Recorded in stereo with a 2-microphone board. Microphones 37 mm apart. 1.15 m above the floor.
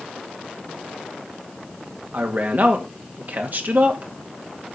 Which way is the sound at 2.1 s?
50° right (ahead or behind).